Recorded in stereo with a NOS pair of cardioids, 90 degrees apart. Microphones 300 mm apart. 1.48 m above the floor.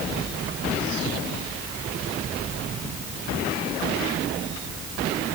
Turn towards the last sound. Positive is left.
No sound to turn to.